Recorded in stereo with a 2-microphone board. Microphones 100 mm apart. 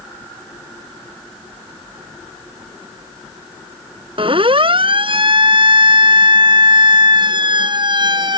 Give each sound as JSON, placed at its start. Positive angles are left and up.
{"t": 4.2, "sound": "a siren", "side_deg": -60}